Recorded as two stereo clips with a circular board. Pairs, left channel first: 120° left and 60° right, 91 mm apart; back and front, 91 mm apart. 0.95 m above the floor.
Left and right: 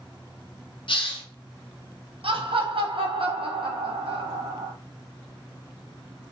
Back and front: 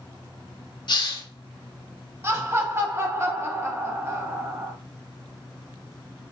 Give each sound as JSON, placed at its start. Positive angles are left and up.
{"t": 0.9, "sound": "a hiss", "azimuth_deg": 140, "distance_m": 0.8}
{"t": 2.2, "sound": "laughter", "azimuth_deg": -60, "distance_m": 1.0}